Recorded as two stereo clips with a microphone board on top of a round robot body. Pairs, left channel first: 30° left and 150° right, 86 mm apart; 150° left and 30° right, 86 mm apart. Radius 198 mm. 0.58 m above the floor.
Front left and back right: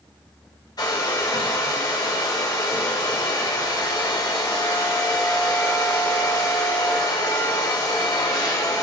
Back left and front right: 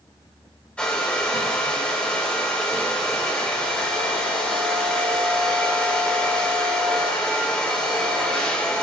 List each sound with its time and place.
0.8 s a hair dryer: 70° left, 3 m